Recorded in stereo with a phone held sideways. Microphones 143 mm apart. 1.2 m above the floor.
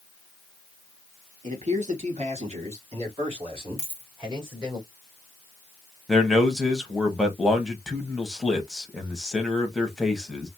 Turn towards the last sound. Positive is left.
turn(degrees=0)  # may be behind; listen again after turning